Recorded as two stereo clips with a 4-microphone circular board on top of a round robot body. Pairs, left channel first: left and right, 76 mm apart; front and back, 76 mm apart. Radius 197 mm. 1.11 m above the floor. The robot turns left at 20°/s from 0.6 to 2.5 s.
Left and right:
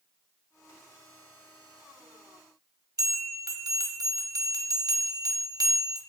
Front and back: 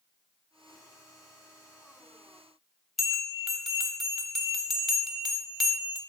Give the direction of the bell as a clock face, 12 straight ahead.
3 o'clock.